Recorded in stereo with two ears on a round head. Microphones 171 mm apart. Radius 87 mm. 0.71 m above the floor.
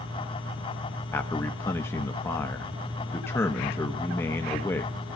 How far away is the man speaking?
About 0.9 m.